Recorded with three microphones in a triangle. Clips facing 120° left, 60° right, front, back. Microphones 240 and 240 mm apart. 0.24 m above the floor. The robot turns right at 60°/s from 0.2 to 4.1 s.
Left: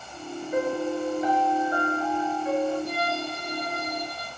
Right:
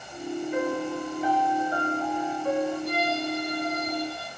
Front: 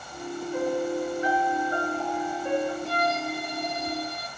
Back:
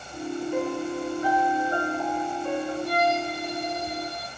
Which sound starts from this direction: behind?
A piano, at 0.5 s.